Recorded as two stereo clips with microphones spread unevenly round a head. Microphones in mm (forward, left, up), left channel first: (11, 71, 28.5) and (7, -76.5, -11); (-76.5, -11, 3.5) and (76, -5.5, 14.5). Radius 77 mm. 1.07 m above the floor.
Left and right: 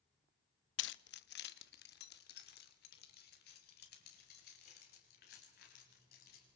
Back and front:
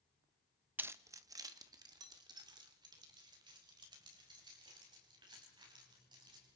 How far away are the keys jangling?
About 0.5 m.